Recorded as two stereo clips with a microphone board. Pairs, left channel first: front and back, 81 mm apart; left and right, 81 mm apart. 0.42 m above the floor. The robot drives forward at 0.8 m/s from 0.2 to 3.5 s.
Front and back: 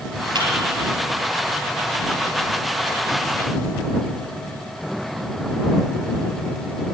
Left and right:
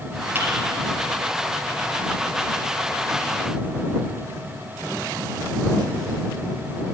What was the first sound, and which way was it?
A thud, 150° right.